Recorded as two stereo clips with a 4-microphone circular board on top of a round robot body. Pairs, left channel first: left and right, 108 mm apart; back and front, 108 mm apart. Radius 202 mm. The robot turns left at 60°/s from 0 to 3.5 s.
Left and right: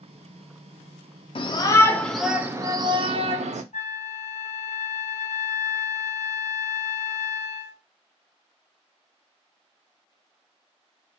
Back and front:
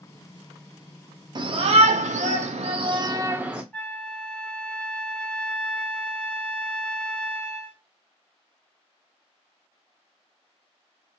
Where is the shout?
50° left, 0.6 m; by 3.6 s 80° right, 0.6 m.